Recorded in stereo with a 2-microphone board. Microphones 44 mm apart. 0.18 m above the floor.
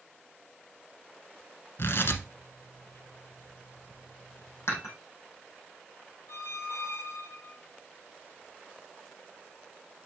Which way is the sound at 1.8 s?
60° left (ahead or behind).